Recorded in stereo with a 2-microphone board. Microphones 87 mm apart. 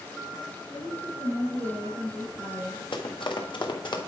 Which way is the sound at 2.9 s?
75° left (ahead or behind).